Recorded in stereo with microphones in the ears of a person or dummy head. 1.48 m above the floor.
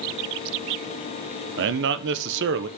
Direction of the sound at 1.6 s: 70° right (ahead or behind).